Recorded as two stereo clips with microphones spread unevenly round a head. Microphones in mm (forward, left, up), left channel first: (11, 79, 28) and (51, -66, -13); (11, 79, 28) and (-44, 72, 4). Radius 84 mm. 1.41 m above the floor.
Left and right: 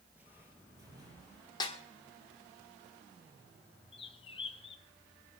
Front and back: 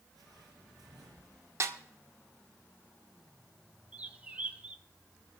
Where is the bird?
105° left, 1.0 m.